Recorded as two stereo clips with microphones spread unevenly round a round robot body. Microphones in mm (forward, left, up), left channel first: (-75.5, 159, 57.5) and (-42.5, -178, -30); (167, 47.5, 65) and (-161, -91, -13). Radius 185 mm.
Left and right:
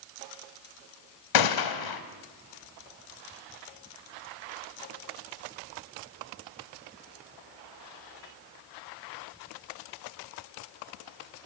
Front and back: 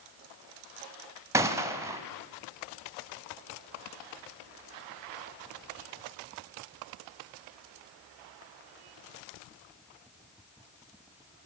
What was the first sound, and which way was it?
A gunshot, 120° left.